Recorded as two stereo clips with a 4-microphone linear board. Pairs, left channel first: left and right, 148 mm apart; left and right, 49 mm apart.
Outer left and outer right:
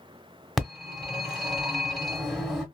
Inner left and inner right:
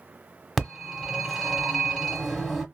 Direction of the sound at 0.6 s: Centre (ahead or behind).